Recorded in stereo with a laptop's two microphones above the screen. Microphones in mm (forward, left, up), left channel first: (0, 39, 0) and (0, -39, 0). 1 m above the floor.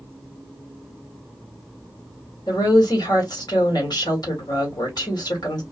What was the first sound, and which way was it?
A woman speaking, 65° left (ahead or behind).